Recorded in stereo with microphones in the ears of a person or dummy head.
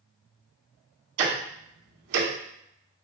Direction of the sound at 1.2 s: 75° right (ahead or behind).